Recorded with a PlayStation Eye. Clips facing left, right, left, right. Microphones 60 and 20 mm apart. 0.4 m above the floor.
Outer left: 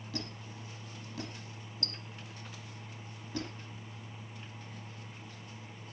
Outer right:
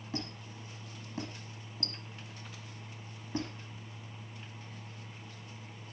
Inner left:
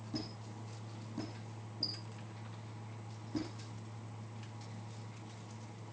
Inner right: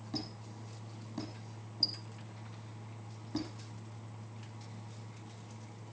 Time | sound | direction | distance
0.1 | a squeak | 30° right (ahead or behind) | 7 m